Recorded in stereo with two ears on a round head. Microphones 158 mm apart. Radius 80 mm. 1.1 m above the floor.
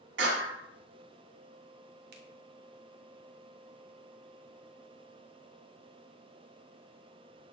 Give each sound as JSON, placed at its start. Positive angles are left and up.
{"t": 0.2, "sound": "a clap", "side_deg": -80, "distance_m": 7.0}
{"t": 2.1, "sound": "a finger snap", "side_deg": -60, "distance_m": 2.0}